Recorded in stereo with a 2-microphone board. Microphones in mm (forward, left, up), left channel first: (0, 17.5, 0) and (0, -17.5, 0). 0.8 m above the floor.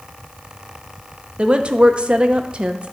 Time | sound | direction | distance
1.4 | a woman speaking | 35° right (ahead or behind) | 0.7 m